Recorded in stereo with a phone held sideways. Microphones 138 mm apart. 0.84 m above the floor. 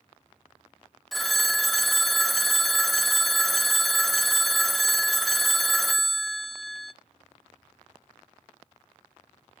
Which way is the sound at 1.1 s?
Centre (ahead or behind).